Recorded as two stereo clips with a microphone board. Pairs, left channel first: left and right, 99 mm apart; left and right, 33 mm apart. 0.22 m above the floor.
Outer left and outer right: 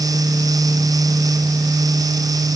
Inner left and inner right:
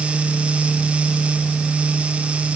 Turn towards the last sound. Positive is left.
No sound to turn to.